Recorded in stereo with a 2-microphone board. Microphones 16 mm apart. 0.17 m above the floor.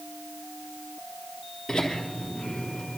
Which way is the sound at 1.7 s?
40° left (ahead or behind).